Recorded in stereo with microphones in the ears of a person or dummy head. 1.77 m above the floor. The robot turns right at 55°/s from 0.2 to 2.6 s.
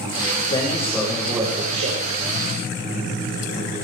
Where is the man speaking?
150° left, 7 m; by 2.0 s 125° right, 7 m.